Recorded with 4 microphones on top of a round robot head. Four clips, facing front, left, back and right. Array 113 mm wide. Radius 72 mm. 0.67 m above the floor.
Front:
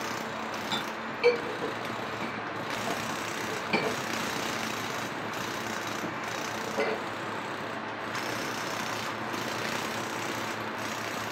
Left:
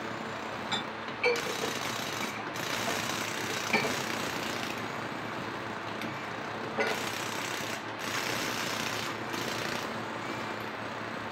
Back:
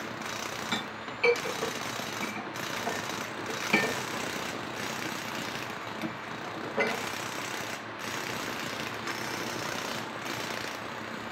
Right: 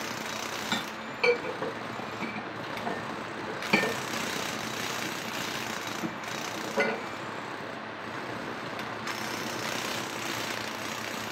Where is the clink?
80° right, 6 m.